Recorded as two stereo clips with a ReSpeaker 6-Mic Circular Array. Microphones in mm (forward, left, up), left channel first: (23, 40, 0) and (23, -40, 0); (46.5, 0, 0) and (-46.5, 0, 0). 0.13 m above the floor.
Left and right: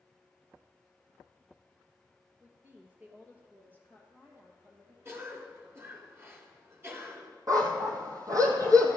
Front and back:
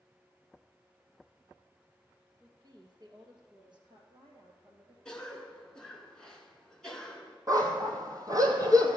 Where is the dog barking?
130° right, 1.3 m.